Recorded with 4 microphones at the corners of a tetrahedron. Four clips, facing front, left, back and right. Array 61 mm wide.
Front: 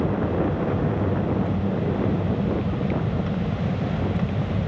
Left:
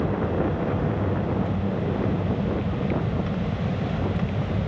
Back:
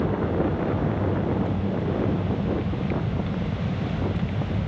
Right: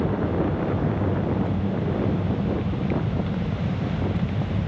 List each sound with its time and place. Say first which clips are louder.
0.0 s an aircraft: right 1 dB, front 1 dB; 40° left